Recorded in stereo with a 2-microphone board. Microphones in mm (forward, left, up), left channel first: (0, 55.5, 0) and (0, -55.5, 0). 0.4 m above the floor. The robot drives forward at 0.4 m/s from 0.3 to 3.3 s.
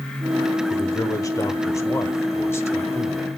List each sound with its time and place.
0.7 s a man speaking: 35° left (ahead or behind), 1.0 m; by 3.3 s 20° left (ahead or behind), 1.5 m